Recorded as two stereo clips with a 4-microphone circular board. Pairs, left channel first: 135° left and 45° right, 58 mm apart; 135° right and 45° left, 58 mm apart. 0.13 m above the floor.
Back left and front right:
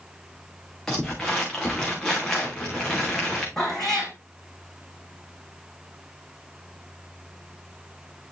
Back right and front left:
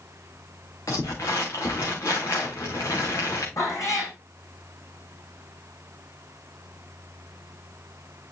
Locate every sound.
0.9 s crumpling: 145° right, 3 m
3.6 s a cat meowing: 145° right, 4.5 m